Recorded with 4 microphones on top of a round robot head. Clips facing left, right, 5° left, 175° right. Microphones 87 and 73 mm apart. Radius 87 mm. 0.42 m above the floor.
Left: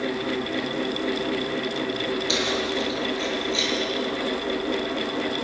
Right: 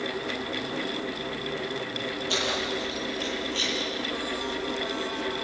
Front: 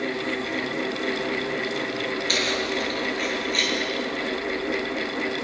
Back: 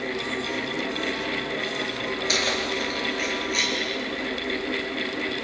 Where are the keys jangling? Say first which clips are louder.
Left 4 dB, even; 110° left, 7 m.